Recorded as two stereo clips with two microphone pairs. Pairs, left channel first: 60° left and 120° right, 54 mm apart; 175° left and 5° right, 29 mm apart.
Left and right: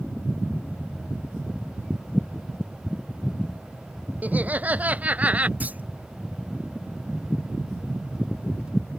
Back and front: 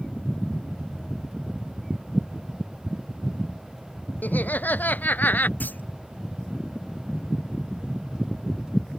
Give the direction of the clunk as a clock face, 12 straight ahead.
6 o'clock.